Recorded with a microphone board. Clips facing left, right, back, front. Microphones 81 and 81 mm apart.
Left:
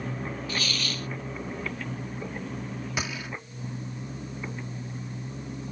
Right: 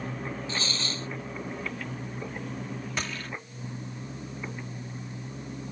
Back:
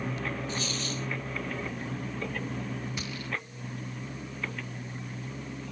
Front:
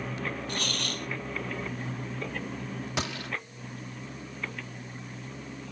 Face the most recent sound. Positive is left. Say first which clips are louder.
# left 2 dB, front 4 dB
turn(degrees=10)